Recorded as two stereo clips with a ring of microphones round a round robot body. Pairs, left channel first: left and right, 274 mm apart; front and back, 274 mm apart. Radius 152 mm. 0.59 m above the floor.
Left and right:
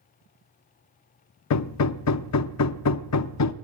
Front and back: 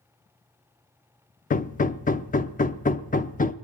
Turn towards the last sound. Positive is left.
turn(degrees=65)